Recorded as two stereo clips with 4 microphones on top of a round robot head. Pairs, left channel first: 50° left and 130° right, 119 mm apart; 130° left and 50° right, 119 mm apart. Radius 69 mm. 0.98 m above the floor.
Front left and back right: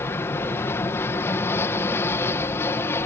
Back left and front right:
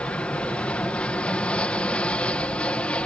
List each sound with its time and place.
0.0 s an aircraft: 70° left